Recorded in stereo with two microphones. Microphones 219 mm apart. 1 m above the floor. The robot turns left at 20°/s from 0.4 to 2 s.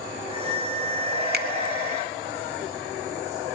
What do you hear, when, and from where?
1.3 s a finger snap: 45° right (ahead or behind), 0.7 m; by 1.5 s 50° right (ahead or behind), 0.7 m